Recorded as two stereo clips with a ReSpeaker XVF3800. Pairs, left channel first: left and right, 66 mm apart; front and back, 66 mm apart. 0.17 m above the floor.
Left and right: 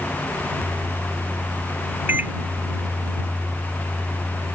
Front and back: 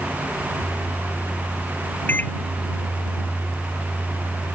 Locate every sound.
2.1 s a microwave: 45° right